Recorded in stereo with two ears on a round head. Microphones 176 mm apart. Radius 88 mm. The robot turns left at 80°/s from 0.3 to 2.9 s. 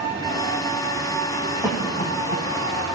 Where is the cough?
10° right (ahead or behind), 3.5 m; by 2.5 s 55° left (ahead or behind), 3.5 m.